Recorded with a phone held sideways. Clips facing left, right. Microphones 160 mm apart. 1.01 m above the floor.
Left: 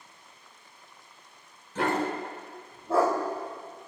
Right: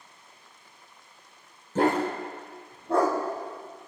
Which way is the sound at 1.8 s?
45° right (ahead or behind).